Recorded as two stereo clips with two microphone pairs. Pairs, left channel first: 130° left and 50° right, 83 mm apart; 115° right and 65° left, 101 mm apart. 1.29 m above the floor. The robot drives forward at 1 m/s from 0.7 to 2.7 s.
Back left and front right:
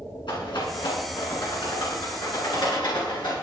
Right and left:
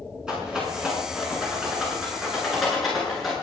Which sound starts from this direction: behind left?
A rattle, at 0.3 s.